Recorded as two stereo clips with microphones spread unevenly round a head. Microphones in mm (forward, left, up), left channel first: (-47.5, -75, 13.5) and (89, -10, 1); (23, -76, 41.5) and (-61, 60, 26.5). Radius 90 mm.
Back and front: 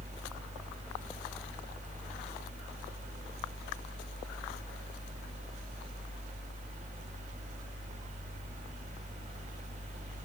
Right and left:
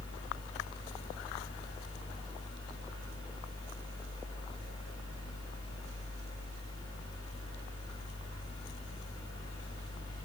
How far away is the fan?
About 1.7 m.